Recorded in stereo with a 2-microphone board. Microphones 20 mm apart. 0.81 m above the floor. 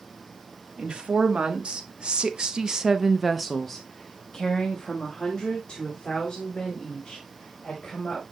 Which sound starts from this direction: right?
A woman speaking, at 0.8 s.